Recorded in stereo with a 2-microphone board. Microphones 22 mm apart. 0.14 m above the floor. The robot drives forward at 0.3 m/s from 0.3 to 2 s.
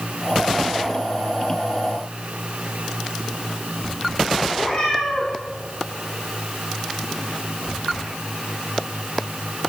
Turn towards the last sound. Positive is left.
turn(degrees=35)  # may be behind; listen again after turning